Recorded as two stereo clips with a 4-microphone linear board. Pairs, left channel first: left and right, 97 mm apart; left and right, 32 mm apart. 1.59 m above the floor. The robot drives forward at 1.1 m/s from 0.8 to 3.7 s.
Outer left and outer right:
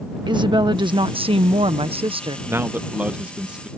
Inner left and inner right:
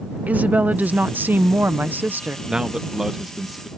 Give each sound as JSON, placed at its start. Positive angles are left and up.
{"t": 0.3, "sound": "a woman speaking", "side_deg": -50}
{"t": 2.5, "sound": "a man speaking", "side_deg": -25}